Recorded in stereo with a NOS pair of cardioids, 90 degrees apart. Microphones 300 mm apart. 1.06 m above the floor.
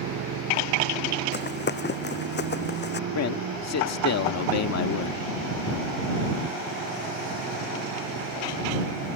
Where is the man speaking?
60° left.